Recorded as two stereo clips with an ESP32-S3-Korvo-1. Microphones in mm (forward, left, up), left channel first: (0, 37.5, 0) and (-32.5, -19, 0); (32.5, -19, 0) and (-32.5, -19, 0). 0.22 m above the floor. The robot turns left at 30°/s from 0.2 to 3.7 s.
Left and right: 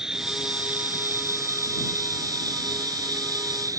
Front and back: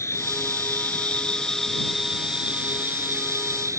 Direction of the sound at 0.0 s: 40° right.